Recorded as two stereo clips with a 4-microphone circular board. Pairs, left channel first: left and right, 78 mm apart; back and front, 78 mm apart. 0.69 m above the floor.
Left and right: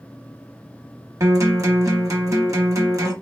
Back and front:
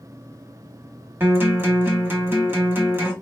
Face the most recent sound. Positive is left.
turn(degrees=-55)